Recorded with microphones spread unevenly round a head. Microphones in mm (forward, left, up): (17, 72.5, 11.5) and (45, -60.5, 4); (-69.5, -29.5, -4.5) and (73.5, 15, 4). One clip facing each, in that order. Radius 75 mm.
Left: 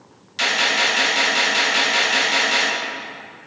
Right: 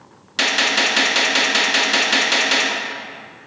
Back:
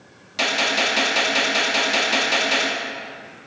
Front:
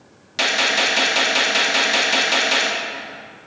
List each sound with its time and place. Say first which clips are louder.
0.4 s a gunshot: right 1 dB, front 1 dB; 75° right, 2 m